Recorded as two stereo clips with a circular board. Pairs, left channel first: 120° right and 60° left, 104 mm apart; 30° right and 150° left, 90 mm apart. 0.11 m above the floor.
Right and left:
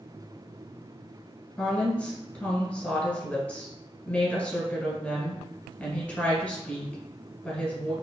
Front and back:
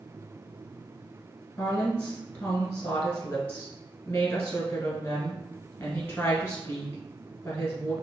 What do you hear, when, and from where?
1.6 s a woman speaking: 65° right, 1.5 m